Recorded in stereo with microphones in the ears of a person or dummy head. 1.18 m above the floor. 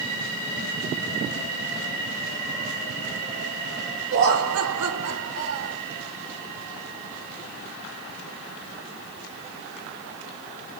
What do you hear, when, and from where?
4.1 s laughter: 60° right (ahead or behind), 0.7 m